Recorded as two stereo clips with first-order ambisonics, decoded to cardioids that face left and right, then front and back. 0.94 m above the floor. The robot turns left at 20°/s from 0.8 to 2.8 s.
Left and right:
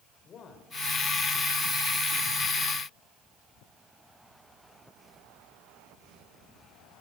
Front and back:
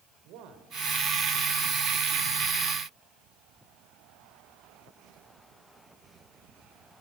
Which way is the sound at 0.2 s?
150° left.